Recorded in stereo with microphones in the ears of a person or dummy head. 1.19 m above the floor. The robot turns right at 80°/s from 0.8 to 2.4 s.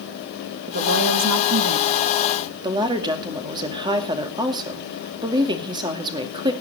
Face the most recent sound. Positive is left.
turn(degrees=-25)  # may be behind; listen again after turning